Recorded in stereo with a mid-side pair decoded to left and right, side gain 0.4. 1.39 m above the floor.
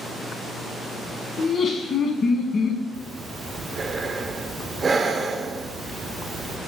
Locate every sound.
1.4 s laughter: 55° left, 0.9 m
2.9 s breathing: 40° right, 0.5 m